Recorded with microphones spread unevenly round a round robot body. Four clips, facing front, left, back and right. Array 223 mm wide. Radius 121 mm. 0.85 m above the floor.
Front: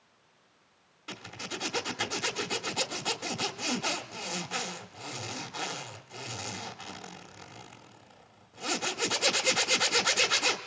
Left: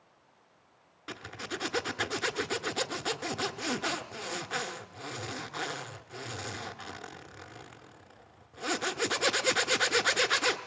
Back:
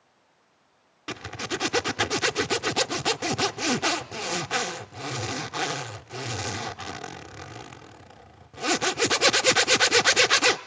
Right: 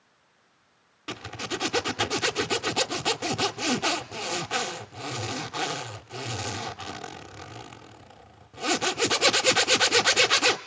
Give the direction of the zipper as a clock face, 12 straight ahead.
5 o'clock.